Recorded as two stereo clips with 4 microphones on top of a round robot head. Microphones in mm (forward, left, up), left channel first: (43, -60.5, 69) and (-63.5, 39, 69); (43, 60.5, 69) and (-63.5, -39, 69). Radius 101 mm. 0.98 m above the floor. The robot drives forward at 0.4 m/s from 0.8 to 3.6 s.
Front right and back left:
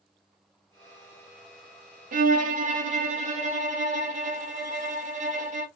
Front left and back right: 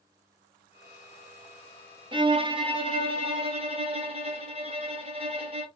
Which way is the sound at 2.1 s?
165° left.